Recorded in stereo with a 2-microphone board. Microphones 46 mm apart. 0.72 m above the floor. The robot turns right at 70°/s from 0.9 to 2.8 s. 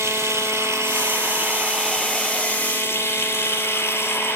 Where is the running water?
85° right, 9 m; by 4.4 s 50° left, 9 m.